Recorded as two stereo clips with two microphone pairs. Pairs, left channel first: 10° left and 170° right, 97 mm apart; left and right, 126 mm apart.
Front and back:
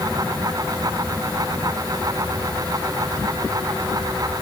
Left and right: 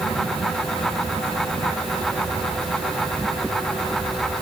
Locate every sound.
Only background noise.